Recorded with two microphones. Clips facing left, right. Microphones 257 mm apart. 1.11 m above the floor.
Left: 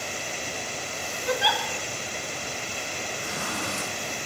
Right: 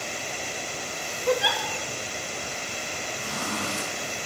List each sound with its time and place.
1.3 s a giggle: 55° right (ahead or behind), 1.4 m
3.2 s a zipper: 90° right, 6.5 m